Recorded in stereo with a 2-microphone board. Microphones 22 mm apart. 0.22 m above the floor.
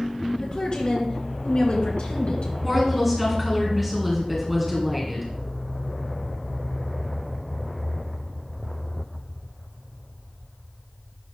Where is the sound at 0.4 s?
40° left (ahead or behind), 3.5 m; by 2.5 s 55° left (ahead or behind), 3 m.